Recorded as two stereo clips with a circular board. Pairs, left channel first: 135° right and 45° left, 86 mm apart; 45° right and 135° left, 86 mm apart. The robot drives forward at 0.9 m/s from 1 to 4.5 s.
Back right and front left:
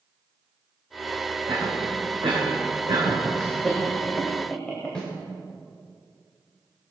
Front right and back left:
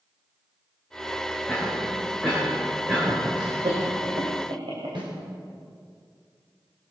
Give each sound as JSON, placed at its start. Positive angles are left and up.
{"t": 1.5, "sound": "a cough", "azimuth_deg": 45, "distance_m": 3.5}
{"t": 3.4, "sound": "laughter", "azimuth_deg": 135, "distance_m": 2.5}
{"t": 5.0, "sound": "a snare drum", "azimuth_deg": 145, "distance_m": 4.0}